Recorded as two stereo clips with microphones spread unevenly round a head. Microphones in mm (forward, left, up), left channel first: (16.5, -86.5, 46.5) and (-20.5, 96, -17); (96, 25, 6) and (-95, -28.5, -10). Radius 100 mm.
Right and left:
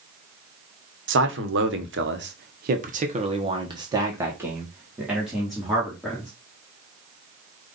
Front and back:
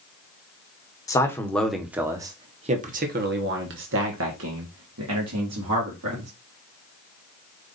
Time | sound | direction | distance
1.1 | a man speaking | 90° left | 1.1 m